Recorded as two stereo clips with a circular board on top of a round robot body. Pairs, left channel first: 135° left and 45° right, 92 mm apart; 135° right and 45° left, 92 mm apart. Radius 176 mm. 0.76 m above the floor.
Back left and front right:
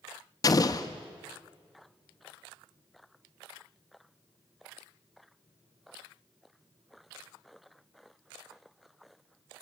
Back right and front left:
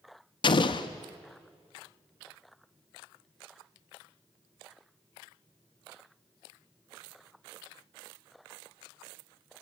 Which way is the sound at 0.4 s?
170° right.